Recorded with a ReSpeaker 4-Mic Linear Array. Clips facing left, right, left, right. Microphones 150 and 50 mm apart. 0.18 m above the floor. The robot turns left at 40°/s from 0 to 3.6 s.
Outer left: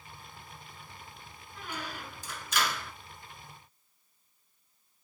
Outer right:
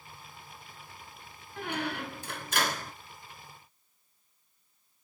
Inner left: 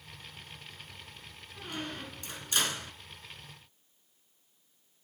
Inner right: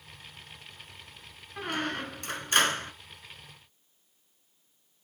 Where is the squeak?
80° right, 0.8 m; by 2.9 s 135° right, 0.8 m.